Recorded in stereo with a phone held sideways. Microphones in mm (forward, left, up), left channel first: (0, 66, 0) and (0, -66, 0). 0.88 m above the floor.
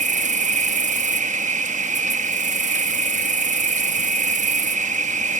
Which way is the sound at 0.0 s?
70° right (ahead or behind).